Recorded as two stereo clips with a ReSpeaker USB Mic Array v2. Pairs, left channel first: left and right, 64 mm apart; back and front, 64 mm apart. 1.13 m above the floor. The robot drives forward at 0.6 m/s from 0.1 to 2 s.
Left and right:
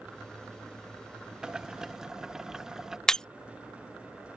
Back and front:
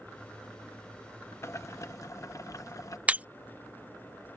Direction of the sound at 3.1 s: 25° left.